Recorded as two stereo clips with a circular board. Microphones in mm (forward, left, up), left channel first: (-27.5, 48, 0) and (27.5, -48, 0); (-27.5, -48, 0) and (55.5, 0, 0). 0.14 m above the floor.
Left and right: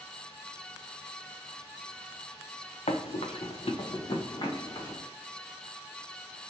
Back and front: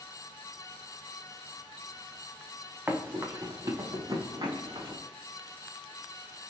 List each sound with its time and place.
2.9 s running footsteps: 105° left, 0.7 m; by 5.0 s 70° left, 1.6 m